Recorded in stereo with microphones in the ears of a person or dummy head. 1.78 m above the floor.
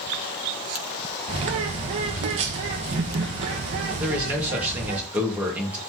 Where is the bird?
35° right (ahead or behind), 1.1 m.